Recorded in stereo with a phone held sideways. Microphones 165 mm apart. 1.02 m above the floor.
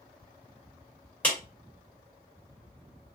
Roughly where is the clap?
Centre.